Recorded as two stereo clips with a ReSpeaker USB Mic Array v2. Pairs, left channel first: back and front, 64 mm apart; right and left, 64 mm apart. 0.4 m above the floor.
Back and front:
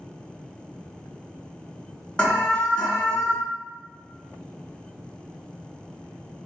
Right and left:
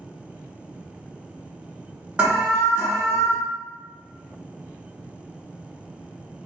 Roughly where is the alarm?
Behind left.